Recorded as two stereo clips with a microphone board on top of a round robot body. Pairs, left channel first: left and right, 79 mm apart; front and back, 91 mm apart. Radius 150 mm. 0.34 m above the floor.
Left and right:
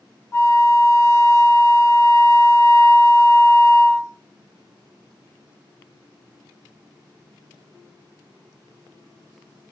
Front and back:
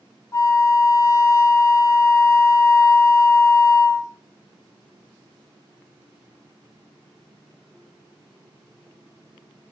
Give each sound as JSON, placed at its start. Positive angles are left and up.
{"t": 0.3, "sound": "a flute", "azimuth_deg": 45, "distance_m": 0.8}